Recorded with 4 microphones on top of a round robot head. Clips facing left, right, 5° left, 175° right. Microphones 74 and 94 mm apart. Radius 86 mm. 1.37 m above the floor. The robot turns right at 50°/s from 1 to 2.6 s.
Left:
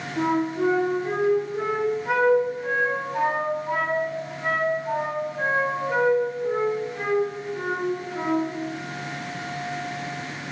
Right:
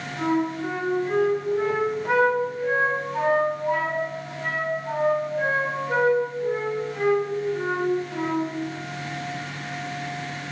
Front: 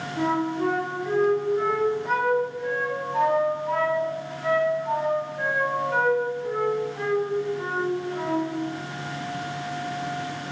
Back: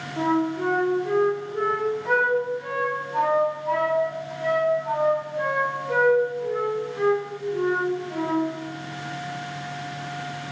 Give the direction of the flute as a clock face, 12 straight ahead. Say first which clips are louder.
Left 1 dB, back 2 dB; 8 o'clock.